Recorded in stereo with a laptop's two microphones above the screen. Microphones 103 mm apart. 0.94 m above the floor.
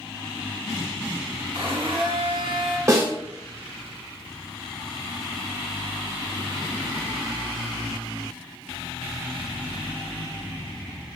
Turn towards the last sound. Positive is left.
turn(degrees=-30)  # may be behind; listen again after turning